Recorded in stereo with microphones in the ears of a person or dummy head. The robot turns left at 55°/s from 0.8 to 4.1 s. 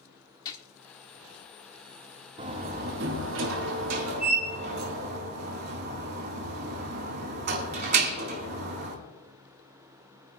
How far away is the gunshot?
About 1.4 m.